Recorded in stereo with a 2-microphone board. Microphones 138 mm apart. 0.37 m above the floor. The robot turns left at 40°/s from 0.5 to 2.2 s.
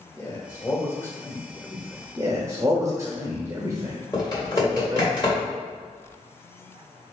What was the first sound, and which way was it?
A man speaking, 20° left (ahead or behind).